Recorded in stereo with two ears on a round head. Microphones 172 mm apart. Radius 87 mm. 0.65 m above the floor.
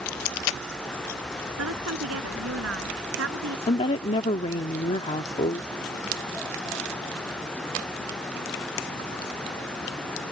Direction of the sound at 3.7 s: 35° left (ahead or behind).